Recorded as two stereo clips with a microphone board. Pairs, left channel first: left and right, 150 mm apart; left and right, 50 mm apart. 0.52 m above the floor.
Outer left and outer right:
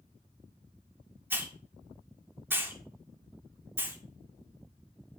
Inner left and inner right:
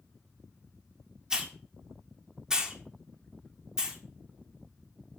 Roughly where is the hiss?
Centre.